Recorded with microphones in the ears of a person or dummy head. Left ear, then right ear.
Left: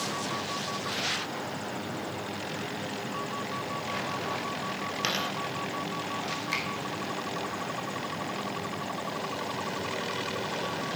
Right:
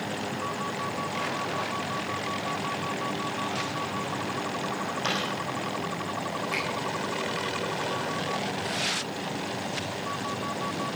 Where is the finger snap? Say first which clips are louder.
Right 1 dB; 65° left (ahead or behind), 4.5 m.